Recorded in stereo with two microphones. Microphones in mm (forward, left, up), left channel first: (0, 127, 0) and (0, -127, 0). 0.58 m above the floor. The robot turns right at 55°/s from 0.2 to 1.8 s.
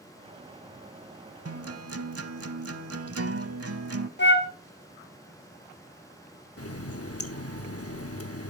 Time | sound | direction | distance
1.4 | a guitar | 60° right (ahead or behind) | 0.7 m
4.2 | a flute | 45° left (ahead or behind) | 0.8 m
6.6 | a running tap | 60° left (ahead or behind) | 0.8 m